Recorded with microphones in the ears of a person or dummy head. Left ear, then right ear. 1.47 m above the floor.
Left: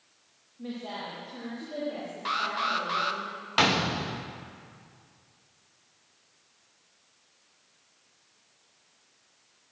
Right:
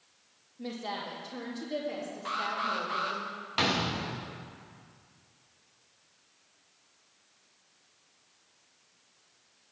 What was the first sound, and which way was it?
A woman speaking, 85° right.